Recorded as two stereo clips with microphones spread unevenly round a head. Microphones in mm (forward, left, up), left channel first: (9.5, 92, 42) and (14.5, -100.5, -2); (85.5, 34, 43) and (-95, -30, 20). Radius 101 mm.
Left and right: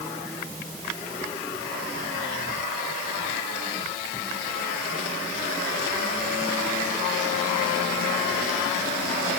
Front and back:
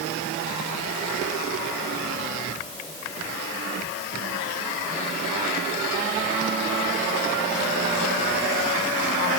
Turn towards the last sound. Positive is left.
No sound to turn to.